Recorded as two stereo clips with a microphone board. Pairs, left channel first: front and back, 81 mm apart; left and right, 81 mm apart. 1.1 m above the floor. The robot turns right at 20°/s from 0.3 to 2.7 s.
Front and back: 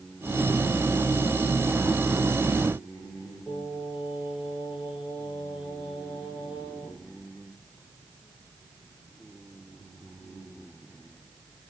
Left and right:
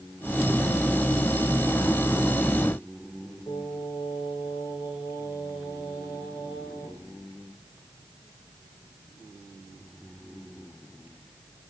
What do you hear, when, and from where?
3.5 s singing: 95° left, 7.5 m